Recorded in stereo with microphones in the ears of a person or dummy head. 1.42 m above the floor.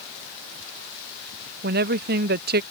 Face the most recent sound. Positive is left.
turn(degrees=-50)  # may be behind; listen again after turning